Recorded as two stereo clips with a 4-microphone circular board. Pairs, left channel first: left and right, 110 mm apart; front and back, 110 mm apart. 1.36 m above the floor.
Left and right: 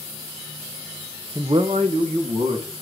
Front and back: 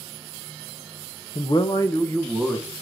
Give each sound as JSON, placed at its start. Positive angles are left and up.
{"t": 1.4, "sound": "a man speaking", "azimuth_deg": -25, "distance_m": 0.5}